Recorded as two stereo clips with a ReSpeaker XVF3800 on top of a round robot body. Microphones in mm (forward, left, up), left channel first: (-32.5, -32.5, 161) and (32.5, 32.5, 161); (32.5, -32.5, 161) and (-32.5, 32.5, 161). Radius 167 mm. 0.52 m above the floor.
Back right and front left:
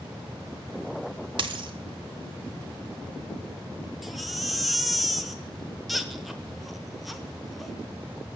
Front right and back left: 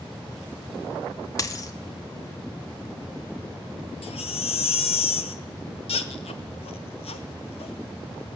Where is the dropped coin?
10° left, 0.8 m.